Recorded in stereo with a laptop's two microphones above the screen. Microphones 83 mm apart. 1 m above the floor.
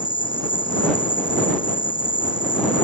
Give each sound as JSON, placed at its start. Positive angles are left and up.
{"t": 0.0, "sound": "an insect", "side_deg": 90}